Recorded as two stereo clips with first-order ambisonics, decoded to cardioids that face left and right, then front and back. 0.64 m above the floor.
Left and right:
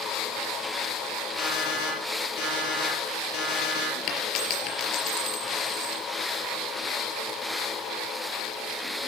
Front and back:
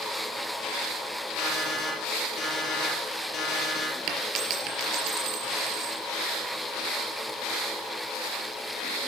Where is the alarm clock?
60° left, 6 m.